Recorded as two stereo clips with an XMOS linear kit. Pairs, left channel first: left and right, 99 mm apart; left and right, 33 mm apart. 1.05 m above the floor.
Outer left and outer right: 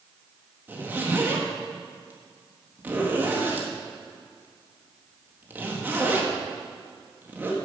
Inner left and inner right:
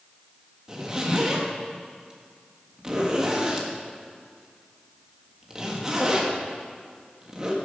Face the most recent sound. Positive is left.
turn(degrees=-20)  # may be behind; listen again after turning